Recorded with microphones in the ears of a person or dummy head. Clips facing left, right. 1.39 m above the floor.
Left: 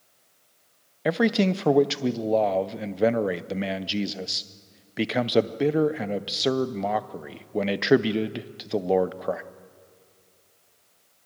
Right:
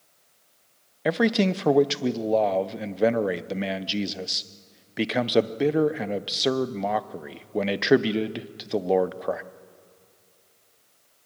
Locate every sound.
1.1 s a man speaking: 5° right (ahead or behind), 0.6 m